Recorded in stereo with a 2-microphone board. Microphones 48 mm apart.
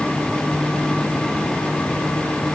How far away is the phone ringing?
No phone ringing in this recording.